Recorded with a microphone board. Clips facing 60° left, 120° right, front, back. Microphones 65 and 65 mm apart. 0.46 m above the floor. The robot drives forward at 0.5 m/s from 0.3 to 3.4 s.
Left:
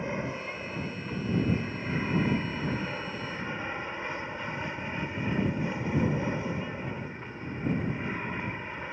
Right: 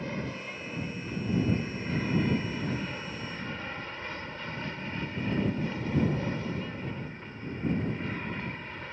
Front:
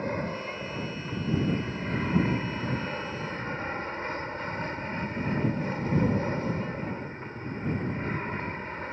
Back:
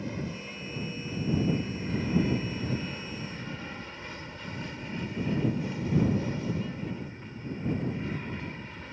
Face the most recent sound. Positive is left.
turn(degrees=-5)